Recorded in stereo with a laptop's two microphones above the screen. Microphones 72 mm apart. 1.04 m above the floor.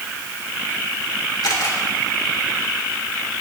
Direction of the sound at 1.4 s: 75° left (ahead or behind).